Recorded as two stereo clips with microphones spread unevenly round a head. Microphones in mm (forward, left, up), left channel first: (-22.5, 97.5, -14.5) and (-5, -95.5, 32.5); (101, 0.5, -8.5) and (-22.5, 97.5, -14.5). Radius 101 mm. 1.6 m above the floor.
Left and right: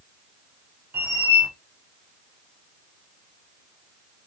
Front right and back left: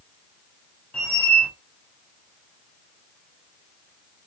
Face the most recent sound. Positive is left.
turn(degrees=-110)